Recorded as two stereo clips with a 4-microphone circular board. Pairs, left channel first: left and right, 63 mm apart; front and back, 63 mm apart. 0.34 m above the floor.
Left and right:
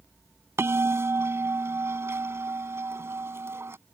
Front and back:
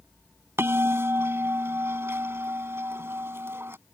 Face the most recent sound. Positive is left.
turn(degrees=-135)